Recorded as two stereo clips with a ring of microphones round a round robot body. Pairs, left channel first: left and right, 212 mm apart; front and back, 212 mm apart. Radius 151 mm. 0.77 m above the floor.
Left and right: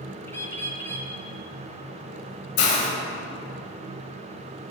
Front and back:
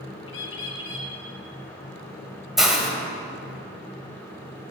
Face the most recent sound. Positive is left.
turn(degrees=90)